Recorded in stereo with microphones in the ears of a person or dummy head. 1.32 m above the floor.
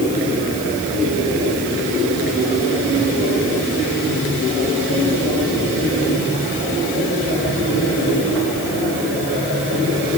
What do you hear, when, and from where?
Only background noise.